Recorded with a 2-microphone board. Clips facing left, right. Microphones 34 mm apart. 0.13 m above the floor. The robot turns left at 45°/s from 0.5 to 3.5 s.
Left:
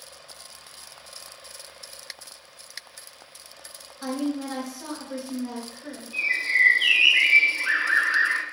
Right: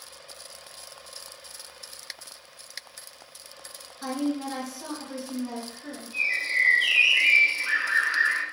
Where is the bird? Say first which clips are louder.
Left 3 dB; 30° left (ahead or behind), 0.6 m.